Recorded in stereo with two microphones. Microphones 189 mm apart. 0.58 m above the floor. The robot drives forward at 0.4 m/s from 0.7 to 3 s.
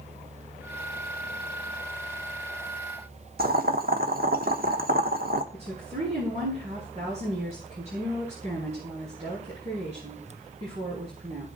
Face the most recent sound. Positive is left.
turn(degrees=-40)  # may be behind; listen again after turning